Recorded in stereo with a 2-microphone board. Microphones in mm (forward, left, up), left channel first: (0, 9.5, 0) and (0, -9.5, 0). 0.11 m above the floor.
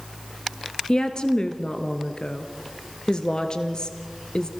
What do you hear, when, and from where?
0.9 s a woman speaking: 45° left (ahead or behind), 1.7 m